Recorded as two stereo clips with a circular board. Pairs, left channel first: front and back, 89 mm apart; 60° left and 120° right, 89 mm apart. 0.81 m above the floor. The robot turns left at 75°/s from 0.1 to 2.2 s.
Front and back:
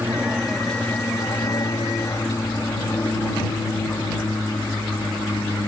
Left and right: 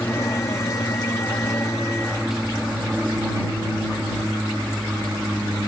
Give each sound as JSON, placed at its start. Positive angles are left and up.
{"t": 0.0, "sound": "an aircraft", "azimuth_deg": 120}